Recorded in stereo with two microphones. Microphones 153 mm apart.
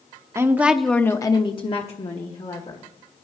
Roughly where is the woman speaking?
Centre.